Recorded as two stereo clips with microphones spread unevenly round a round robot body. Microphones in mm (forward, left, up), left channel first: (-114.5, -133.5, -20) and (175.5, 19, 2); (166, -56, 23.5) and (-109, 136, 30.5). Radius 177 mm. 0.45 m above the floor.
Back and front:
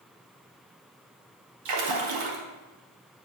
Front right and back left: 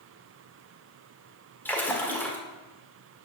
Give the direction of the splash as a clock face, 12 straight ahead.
10 o'clock.